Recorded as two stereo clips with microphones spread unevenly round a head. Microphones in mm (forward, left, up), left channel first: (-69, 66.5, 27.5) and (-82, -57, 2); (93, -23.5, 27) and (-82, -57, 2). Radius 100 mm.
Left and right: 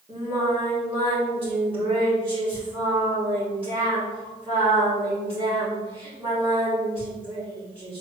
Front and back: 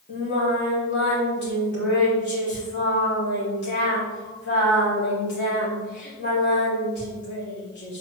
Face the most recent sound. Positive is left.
turn(degrees=-15)